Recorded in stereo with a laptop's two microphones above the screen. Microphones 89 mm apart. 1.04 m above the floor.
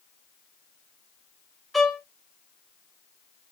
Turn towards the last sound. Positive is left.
turn(degrees=0)  # may be behind; listen again after turning